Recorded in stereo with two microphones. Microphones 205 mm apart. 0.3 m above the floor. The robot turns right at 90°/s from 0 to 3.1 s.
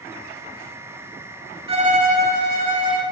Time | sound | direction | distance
1.7 | a violin | 145° right | 0.9 m